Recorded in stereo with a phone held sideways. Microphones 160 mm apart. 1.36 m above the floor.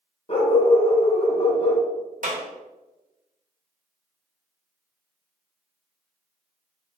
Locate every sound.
0.3 s a dog barking: 40° left (ahead or behind), 0.9 m
2.2 s a clap: 55° right (ahead or behind), 1.1 m